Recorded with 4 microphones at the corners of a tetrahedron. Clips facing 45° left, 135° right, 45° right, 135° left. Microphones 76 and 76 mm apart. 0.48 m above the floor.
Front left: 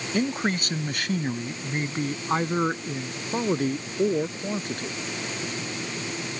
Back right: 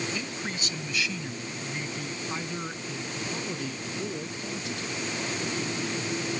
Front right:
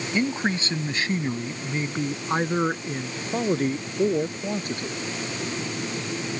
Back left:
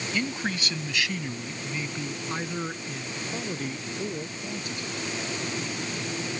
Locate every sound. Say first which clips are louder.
0.1 s a man speaking: front left 9 dB, front right 6 dB; 15° left; by 5.0 s straight ahead